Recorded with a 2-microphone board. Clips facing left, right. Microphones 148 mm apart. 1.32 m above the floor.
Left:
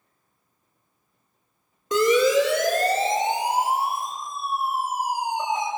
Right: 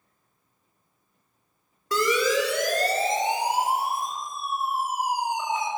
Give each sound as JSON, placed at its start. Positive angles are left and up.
{"t": 1.9, "sound": "a siren", "side_deg": 20, "distance_m": 5.5}